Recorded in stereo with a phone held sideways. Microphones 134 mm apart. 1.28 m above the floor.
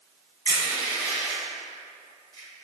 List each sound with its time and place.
0.5 s crushing: 35° left (ahead or behind), 1.6 m